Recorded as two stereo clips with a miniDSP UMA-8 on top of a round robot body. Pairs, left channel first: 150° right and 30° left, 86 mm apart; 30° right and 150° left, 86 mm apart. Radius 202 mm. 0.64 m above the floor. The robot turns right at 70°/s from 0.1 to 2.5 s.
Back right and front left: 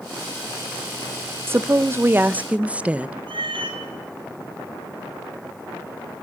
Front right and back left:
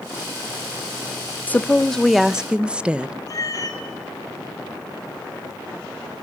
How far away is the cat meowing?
About 2.5 m.